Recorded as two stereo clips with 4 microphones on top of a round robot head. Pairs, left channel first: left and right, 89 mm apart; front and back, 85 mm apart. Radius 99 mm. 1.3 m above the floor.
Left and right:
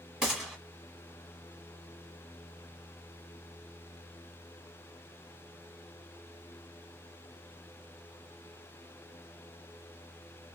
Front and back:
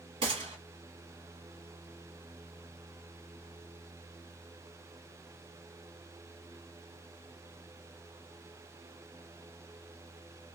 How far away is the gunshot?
About 1.1 m.